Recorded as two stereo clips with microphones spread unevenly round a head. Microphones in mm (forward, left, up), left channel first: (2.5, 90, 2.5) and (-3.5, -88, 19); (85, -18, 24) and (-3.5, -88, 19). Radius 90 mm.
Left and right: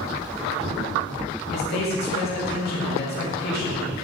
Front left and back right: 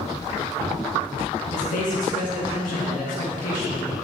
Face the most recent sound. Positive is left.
turn(degrees=50)